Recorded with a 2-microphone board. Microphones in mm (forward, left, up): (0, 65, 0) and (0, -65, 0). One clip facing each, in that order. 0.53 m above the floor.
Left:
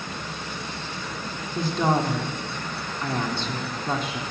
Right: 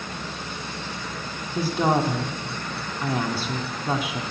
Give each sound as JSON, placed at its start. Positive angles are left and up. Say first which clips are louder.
{"t": 1.6, "sound": "a woman speaking", "louder": "right 1 dB", "side_deg": -10, "distance_m": 0.9}